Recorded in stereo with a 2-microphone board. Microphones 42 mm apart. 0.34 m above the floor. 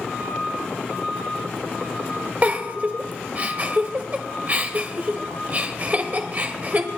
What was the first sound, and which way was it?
A giggle, 35° right (ahead or behind).